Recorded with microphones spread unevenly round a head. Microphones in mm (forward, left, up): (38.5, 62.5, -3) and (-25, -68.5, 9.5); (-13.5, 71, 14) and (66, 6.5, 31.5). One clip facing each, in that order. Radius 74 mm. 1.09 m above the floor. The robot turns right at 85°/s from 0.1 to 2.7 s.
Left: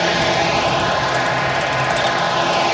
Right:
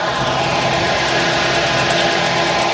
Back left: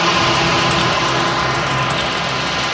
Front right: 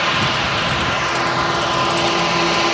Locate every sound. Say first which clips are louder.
0.0 s a drone: left 1 dB, back left 4 dB; 115° left; by 2.8 s 25° right